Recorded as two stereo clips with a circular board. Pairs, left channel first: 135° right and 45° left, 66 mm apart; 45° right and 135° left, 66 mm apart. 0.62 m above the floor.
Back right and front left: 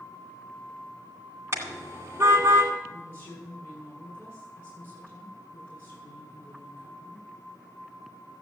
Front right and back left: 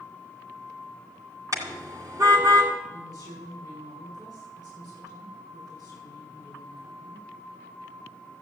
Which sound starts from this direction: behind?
A woman speaking, at 2.9 s.